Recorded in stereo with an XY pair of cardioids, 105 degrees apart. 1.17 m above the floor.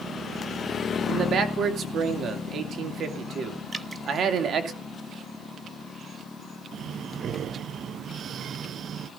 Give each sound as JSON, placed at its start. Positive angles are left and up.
{"t": 1.1, "sound": "a man speaking", "azimuth_deg": -55, "distance_m": 2.5}
{"t": 3.7, "sound": "dripping", "azimuth_deg": -20, "distance_m": 0.9}
{"t": 6.7, "sound": "breathing", "azimuth_deg": -55, "distance_m": 0.5}